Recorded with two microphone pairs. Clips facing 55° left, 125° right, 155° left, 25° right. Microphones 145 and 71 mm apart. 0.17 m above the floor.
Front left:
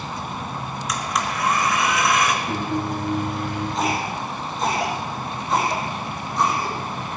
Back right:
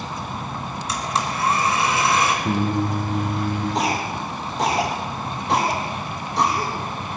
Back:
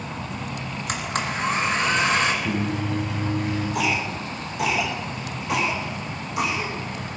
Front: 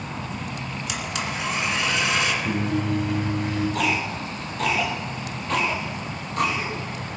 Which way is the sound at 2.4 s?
120° right.